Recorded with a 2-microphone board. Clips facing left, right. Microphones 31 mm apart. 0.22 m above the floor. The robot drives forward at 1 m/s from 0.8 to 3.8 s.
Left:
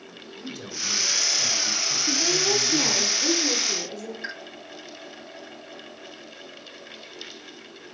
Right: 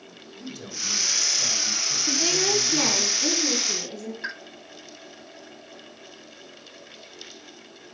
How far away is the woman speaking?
About 1.3 m.